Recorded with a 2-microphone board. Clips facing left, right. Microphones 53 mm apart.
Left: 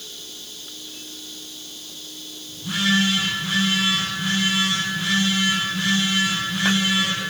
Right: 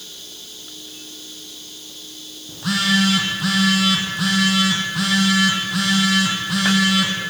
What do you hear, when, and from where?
2.5 s a phone buzzing: 75° right (ahead or behind), 4 m